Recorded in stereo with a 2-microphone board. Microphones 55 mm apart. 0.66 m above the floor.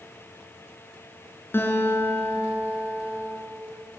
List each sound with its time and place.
1.5 s a guitar: 40° left (ahead or behind), 5 m